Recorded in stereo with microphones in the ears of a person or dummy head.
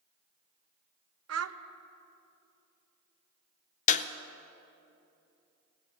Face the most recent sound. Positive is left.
turn(degrees=40)  # may be behind; listen again after turning